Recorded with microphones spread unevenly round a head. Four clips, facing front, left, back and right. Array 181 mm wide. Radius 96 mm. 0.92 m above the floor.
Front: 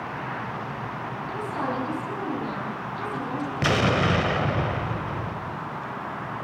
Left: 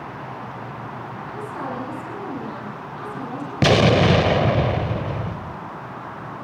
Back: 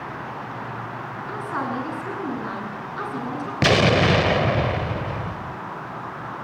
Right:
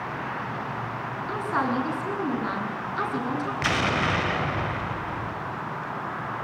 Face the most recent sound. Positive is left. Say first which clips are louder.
# left 12 dB, back 5 dB
turn(degrees=115)